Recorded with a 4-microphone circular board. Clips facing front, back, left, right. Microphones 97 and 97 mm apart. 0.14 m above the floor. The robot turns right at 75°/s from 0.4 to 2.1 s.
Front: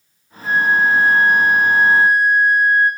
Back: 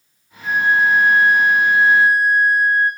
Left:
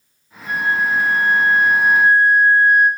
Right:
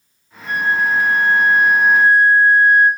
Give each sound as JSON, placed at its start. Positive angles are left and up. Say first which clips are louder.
{"t": 0.4, "sound": "a flute", "louder": "front 1 dB, right 1 dB", "azimuth_deg": -100, "distance_m": 3.0}